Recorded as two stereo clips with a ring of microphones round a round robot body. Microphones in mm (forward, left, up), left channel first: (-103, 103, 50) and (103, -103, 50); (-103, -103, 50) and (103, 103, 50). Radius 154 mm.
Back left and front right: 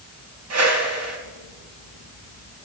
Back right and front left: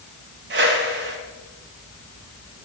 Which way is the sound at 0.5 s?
10° right.